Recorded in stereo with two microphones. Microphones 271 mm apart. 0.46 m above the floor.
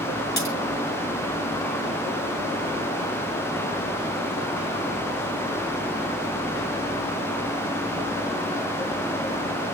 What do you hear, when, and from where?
0.4 s a crack: 70° left (ahead or behind), 7.5 m